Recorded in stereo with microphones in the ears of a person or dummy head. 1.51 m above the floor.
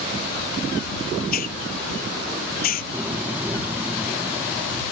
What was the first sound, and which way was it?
A hiss, 55° left (ahead or behind).